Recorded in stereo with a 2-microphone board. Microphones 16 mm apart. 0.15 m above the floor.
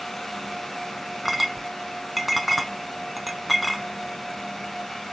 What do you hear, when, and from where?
1.2 s a clink: centre (ahead or behind), 0.6 m